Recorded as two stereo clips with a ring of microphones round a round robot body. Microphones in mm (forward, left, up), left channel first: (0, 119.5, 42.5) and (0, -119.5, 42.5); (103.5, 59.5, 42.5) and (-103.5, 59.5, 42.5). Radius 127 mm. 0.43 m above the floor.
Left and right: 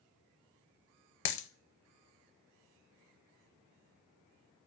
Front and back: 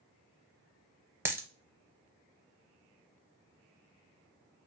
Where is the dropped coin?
100° left, 0.6 m.